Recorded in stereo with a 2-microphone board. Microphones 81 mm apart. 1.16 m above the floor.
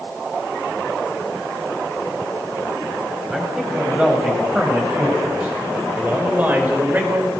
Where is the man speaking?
10° right (ahead or behind), 7.5 m; by 7.3 s 25° right (ahead or behind), 4.5 m.